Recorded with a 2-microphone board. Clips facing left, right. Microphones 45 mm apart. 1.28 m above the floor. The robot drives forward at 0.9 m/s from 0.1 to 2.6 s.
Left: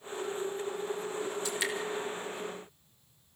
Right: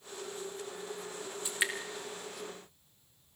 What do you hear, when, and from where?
1.4 s dripping: 20° right (ahead or behind), 3 m; by 1.7 s 25° right (ahead or behind), 3 m